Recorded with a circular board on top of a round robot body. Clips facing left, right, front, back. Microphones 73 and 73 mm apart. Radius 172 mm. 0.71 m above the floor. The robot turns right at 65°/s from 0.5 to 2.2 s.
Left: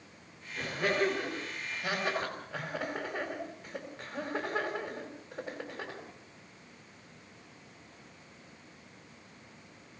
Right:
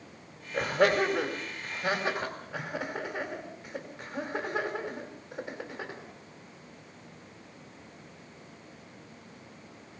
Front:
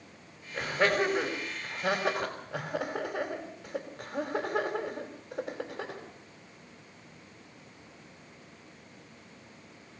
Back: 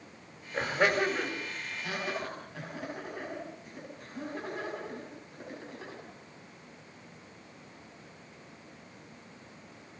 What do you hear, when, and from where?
0.5 s laughter: 110° right, 4.5 m; by 6.0 s straight ahead, 4.5 m